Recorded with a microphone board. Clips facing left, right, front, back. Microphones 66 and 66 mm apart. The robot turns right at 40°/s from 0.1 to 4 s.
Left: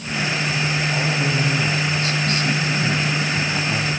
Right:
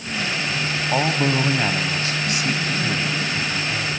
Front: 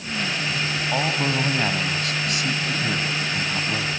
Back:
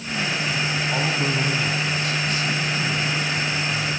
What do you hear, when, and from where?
0.9 s a man speaking: 70° right, 3 m; by 3.9 s 50° left, 3 m